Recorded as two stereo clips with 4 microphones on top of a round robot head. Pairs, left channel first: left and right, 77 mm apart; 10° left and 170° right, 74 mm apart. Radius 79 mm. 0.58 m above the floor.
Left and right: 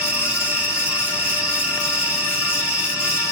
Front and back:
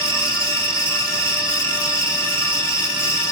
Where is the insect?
165° right, 0.8 m.